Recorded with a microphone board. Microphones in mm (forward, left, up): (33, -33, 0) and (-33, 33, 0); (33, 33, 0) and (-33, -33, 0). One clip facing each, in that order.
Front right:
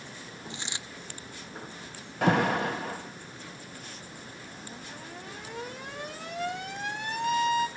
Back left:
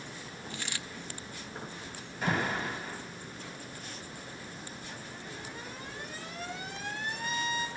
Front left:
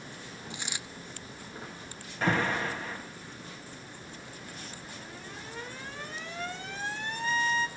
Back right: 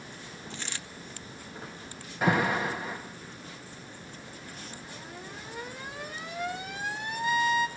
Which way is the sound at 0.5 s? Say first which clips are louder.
Even, even; 10° right.